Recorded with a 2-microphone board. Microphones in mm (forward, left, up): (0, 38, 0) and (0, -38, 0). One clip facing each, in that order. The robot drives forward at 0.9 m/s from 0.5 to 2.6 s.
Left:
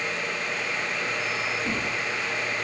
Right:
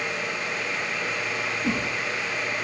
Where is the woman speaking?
No woman speaking in this recording.